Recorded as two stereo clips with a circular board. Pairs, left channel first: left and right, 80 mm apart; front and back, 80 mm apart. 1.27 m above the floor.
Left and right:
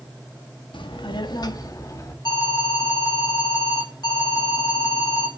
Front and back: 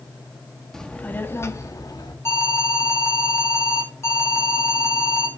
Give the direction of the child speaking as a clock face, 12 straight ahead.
9 o'clock.